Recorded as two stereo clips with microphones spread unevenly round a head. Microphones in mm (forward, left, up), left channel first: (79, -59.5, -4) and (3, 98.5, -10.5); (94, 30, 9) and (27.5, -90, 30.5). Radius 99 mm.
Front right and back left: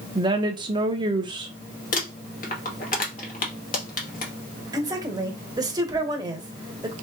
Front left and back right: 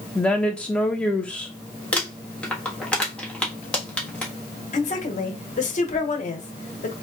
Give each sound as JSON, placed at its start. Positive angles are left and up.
{"t": 0.1, "sound": "a woman speaking", "azimuth_deg": 110, "distance_m": 0.7}
{"t": 1.9, "sound": "crumpling", "azimuth_deg": -20, "distance_m": 1.4}
{"t": 4.7, "sound": "a woman speaking", "azimuth_deg": 50, "distance_m": 1.1}